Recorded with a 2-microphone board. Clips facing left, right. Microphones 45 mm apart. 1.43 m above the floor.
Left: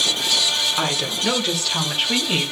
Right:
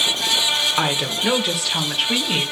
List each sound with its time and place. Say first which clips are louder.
0.8 s a woman speaking: right 2 dB; 20° right (ahead or behind), 1.3 m; by 2.5 s 5° left (ahead or behind), 2 m